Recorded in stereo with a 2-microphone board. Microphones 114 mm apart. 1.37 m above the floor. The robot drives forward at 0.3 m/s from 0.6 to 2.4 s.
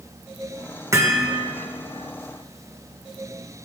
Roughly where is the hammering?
Right.